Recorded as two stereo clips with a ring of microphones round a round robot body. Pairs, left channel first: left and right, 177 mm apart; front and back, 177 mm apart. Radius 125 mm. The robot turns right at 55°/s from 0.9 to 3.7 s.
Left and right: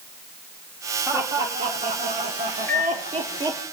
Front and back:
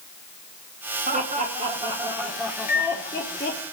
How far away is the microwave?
About 1.2 m.